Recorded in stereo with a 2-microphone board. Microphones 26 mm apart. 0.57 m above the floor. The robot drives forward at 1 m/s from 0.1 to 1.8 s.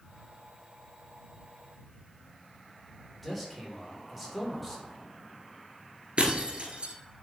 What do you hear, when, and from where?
3.2 s a man speaking: 5° left (ahead or behind), 2 m
6.2 s breaking glass: 45° right (ahead or behind), 1.3 m